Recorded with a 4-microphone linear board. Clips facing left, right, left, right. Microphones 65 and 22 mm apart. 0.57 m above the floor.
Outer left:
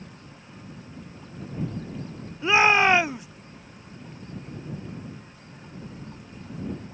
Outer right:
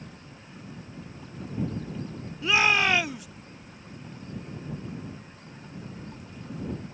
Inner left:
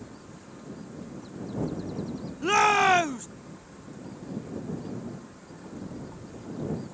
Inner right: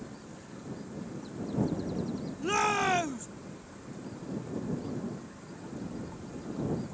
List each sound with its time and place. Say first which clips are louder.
2.4 s a shout: outer left 4 dB, inner left 7 dB; 25° left (ahead or behind)